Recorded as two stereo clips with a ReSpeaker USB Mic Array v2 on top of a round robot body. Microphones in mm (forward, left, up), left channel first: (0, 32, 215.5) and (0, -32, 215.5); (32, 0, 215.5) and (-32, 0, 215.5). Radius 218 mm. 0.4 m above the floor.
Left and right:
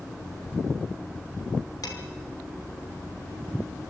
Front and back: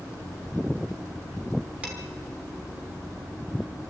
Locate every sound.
1.8 s dishes clattering: 110° left, 4 m